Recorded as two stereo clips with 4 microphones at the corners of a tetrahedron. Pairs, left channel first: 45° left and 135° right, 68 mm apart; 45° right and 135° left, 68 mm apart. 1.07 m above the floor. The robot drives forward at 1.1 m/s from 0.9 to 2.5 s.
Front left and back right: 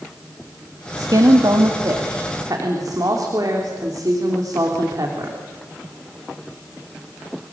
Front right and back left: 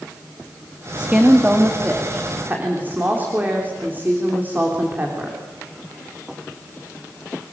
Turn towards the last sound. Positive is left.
turn(degrees=-165)